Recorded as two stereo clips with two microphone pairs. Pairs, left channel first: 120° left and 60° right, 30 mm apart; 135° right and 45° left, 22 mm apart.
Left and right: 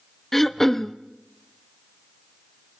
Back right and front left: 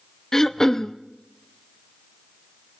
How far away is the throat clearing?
About 0.6 m.